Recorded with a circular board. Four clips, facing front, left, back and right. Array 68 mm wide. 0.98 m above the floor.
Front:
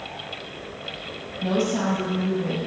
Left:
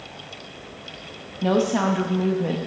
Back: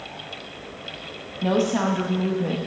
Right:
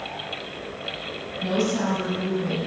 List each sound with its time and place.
1.4 s a woman speaking: 115° left, 1.2 m